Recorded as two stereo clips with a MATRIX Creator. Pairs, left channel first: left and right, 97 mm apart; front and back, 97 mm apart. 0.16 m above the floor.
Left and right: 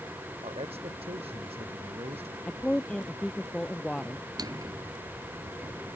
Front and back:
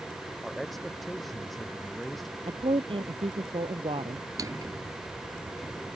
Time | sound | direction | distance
0.4 | a man speaking | 90° right | ?
2.5 | a woman speaking | 170° left | ?
4.4 | a drawer | 130° right | ?